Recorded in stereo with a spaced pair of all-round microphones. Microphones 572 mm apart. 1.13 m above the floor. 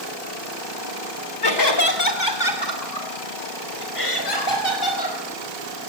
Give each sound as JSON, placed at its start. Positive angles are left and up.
{"t": 1.4, "sound": "laughter", "side_deg": 45, "distance_m": 2.0}